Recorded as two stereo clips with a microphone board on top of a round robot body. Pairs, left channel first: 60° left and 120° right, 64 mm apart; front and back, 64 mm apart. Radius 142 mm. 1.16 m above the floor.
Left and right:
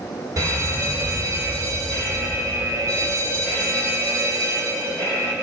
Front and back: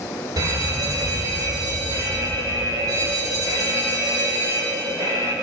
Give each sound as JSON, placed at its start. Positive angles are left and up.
{"t": 0.4, "sound": "a fire alarm", "azimuth_deg": -155, "distance_m": 7.5}